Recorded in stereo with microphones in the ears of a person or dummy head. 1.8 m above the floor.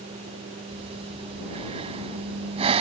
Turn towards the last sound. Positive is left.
turn(degrees=-35)  # may be behind; listen again after turning